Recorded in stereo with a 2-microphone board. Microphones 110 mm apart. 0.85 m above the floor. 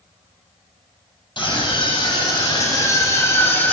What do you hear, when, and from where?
1.4 s a scream: 45° left (ahead or behind), 5.5 m; by 3.7 s 15° left (ahead or behind), 2.5 m